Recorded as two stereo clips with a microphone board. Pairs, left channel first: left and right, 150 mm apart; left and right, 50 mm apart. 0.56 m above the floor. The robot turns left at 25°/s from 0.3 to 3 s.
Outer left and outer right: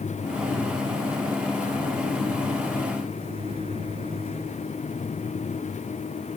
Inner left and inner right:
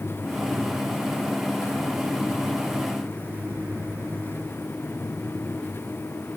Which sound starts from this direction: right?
A microwave, at 3.0 s.